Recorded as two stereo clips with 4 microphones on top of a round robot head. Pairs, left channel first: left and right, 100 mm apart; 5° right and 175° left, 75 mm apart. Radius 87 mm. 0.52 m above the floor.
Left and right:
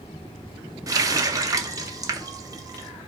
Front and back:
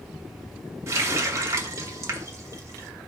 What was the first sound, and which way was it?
A running tap, 140° right.